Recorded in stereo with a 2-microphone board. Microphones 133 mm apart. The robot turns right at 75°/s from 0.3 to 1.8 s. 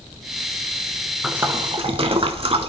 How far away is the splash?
About 0.7 m.